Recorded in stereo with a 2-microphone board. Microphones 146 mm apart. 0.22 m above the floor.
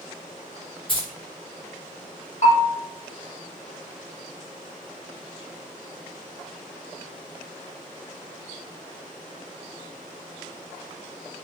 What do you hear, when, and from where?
0.9 s keys jangling: 40° left (ahead or behind), 1.6 m
2.4 s a bell: 55° left (ahead or behind), 1.3 m